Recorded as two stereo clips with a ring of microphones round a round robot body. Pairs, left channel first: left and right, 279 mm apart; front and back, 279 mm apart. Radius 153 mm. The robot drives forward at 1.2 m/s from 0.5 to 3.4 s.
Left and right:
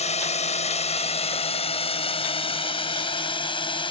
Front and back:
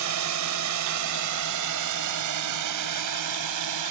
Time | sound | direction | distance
0.0 | a drone | 155° left | ?